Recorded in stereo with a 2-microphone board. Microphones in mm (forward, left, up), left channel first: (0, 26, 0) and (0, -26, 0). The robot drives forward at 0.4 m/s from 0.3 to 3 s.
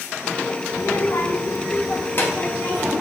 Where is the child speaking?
80° left, 0.6 m; by 2.9 s 35° left (ahead or behind), 1.2 m.